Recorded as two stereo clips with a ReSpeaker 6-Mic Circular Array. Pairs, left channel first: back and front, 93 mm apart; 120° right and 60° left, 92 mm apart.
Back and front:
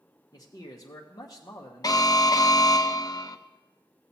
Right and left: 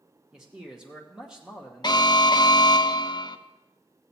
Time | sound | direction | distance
0.3 | a man speaking | 140° left | 0.9 m
1.8 | an alarm | 145° right | 0.5 m